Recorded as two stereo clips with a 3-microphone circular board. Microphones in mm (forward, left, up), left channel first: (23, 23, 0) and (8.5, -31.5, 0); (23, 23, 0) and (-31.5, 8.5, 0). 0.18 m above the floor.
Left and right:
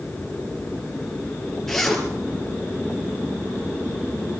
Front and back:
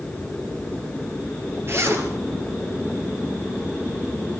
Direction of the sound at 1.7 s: 155° left.